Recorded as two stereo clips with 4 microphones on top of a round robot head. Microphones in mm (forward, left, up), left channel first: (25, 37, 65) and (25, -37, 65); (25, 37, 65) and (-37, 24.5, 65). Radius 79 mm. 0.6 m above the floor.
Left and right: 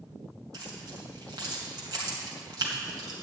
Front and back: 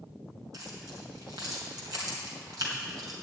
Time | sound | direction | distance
0.5 | keys jangling | 135° right | 2.5 m